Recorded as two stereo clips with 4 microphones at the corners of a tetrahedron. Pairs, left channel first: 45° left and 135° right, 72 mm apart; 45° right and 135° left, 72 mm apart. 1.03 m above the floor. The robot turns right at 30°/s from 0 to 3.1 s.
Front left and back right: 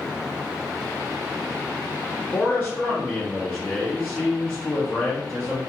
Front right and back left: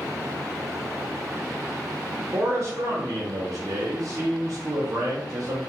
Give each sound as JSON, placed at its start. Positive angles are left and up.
{"t": 2.3, "sound": "a man speaking", "azimuth_deg": 100, "distance_m": 0.7}